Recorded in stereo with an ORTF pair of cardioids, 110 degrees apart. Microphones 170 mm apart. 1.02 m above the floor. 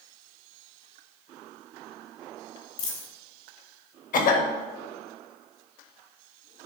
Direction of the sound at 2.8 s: 60° left.